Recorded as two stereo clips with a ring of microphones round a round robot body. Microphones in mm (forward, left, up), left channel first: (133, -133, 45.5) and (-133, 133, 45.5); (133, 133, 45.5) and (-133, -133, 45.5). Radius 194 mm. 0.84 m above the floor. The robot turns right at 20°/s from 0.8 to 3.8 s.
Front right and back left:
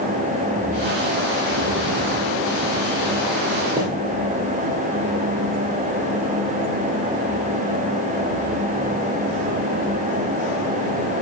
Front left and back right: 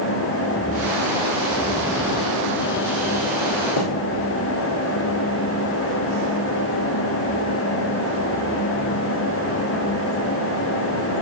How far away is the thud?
About 3.5 m.